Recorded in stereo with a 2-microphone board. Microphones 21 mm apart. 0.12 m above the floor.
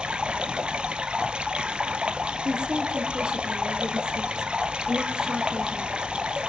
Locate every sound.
0.0 s running water: 55° right (ahead or behind), 0.9 m
2.5 s a woman speaking: 45° right (ahead or behind), 3.5 m